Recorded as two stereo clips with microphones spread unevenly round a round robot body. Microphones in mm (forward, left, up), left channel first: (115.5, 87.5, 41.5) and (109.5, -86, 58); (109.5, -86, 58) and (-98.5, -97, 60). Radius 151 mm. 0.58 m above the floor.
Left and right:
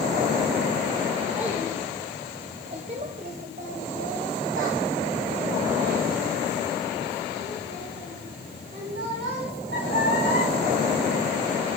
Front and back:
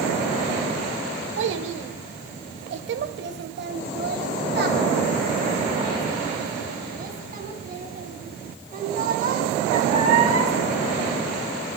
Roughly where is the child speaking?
Behind.